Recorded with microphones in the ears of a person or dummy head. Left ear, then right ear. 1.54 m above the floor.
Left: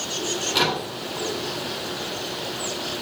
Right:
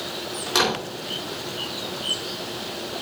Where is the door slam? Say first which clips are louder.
Right 1 dB; 50° right (ahead or behind), 4 m.